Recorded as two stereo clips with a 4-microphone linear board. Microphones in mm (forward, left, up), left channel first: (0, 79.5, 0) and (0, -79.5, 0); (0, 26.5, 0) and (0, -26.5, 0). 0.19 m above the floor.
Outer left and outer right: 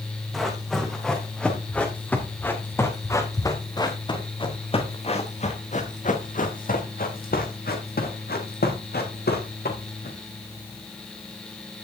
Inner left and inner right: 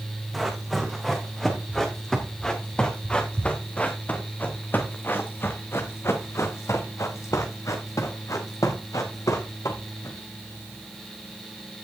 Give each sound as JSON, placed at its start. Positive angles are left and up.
{"t": 0.3, "sound": "running footsteps", "side_deg": 0, "distance_m": 4.0}